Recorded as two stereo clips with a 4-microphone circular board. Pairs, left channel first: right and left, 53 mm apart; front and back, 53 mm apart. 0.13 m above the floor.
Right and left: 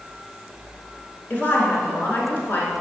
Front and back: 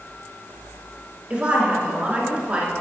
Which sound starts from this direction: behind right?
A woman speaking, at 1.3 s.